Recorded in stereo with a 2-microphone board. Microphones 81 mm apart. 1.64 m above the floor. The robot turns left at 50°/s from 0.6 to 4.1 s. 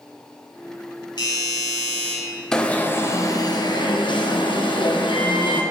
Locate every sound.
1.2 s a doorbell: 70° left, 3 m; by 2.1 s 20° left, 3 m
2.5 s an alarm: 170° left, 1.2 m; by 5.6 s 95° left, 1.2 m